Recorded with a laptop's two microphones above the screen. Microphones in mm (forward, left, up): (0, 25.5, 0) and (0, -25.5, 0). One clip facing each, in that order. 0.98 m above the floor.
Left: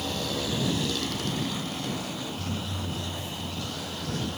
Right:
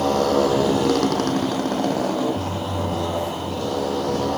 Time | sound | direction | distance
0.0 | a motorcycle | 45° right (ahead or behind) | ?